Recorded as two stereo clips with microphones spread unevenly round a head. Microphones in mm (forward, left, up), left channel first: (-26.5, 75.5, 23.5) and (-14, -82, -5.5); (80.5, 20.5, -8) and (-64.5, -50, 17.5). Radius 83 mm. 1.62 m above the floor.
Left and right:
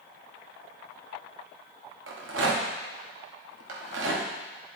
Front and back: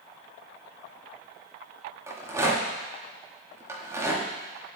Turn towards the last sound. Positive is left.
turn(degrees=-80)